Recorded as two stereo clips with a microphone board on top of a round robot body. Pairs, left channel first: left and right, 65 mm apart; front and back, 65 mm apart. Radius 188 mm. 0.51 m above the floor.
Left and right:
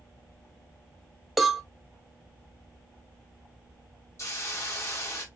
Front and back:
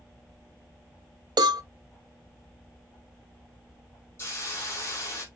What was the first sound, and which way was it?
A cowbell, straight behind.